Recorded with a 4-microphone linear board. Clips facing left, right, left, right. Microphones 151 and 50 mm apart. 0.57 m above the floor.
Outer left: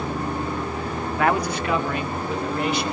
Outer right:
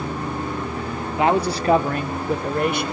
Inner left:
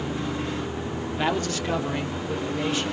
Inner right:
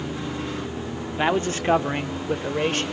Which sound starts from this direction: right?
A man speaking, at 1.2 s.